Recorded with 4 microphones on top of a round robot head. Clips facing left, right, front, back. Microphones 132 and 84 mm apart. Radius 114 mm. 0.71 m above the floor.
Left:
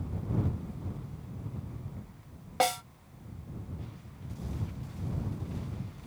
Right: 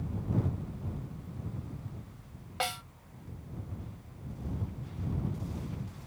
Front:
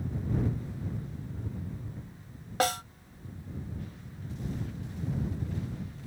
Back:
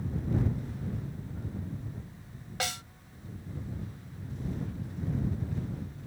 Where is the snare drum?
45° left.